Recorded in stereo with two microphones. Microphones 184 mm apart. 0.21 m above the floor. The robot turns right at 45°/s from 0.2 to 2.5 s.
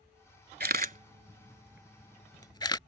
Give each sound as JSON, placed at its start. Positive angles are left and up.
{"t": 0.6, "sound": "a camera shutter", "side_deg": -60}